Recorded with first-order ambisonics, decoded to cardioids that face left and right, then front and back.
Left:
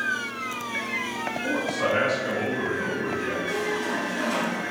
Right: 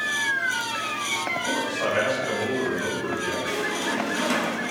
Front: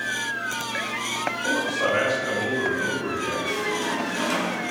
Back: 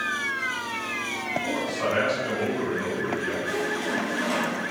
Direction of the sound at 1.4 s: 145° left.